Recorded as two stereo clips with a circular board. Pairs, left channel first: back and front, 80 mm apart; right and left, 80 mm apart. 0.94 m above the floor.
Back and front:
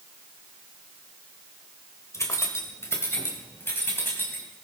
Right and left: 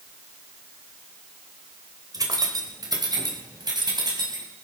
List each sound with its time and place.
2.1 s keys jangling: 130° left, 2.5 m; by 4.4 s 115° left, 4.5 m